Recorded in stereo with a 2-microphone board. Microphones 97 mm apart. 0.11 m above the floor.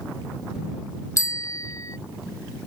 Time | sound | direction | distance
1.2 | a bicycle bell | 35° left (ahead or behind) | ?